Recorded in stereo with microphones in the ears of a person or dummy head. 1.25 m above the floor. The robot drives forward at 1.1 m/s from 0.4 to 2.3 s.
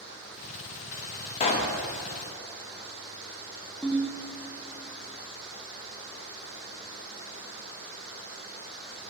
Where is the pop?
35° left (ahead or behind), 0.7 m.